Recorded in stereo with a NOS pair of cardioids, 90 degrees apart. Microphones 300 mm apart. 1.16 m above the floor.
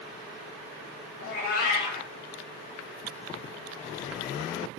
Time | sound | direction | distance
1.2 | a cat meowing | 50° left | 0.9 m